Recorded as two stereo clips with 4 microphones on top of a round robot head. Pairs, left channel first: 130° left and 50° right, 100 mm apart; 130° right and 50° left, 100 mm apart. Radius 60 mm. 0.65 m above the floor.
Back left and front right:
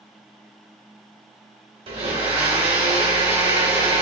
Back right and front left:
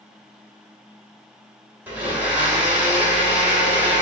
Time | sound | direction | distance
1.9 | a blender | 20° right | 2 m